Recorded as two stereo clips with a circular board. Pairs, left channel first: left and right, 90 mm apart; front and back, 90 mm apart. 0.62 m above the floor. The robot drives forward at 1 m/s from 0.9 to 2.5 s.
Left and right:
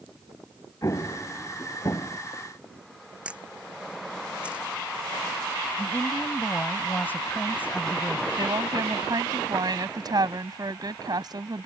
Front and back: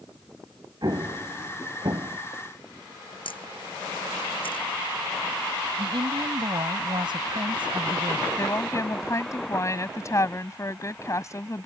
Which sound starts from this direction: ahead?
A camera shutter, at 3.2 s.